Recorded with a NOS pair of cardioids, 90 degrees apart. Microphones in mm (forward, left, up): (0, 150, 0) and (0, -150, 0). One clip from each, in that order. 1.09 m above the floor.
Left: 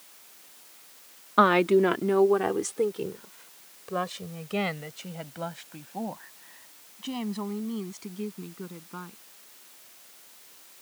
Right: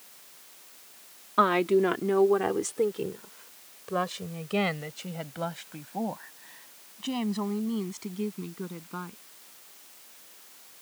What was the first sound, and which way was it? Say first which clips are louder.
A woman speaking: left 3 dB; 30° left.